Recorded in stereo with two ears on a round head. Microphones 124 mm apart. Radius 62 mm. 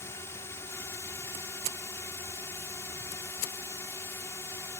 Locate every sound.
0.0 s a drone: 20° left (ahead or behind)